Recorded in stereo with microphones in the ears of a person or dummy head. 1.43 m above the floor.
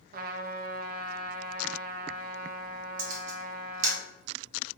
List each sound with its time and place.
0.1 s a trumpet: 50° right (ahead or behind), 0.5 m
3.0 s a camera shutter: 45° right (ahead or behind), 1.3 m